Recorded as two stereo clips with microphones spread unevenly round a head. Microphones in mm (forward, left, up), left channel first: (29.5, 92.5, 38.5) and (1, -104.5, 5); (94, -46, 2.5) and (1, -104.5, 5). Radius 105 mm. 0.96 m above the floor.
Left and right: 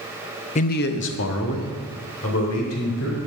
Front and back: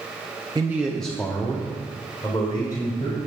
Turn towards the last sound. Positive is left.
turn(degrees=100)